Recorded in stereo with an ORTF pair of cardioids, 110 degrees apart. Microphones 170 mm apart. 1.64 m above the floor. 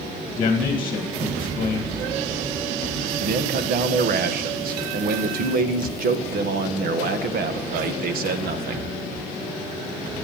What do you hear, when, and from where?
0.4 s a man speaking: 35° left, 2 m
3.2 s a man speaking: 60° right, 1.6 m